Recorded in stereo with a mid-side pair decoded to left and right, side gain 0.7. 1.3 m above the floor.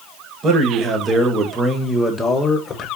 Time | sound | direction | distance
0.4 | a man speaking | 40° right | 1.4 m